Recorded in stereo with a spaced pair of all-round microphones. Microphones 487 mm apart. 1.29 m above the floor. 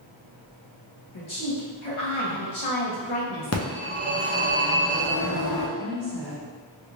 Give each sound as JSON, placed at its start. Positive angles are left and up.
{"t": 1.1, "sound": "a woman speaking", "side_deg": 75, "distance_m": 1.2}
{"t": 3.5, "sound": "a phone ringing", "side_deg": 30, "distance_m": 0.7}
{"t": 5.8, "sound": "a woman speaking", "side_deg": -60, "distance_m": 0.8}